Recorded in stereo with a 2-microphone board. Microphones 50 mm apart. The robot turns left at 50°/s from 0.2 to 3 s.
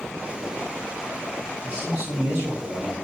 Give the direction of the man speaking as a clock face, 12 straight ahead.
2 o'clock.